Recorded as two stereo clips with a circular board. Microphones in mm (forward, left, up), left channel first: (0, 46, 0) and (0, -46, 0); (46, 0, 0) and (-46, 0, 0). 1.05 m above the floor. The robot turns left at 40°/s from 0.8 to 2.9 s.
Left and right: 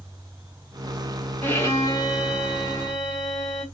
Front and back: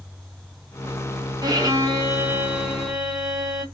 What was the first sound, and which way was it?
A violin, 155° left.